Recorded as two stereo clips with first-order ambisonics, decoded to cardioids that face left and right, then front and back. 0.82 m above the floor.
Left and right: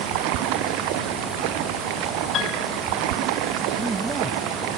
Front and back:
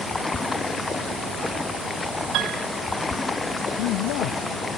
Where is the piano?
145° left.